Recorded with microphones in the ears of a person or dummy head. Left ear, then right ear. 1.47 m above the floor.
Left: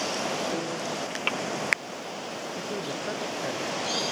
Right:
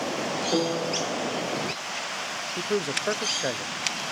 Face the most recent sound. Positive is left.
turn(degrees=-35)  # may be behind; listen again after turning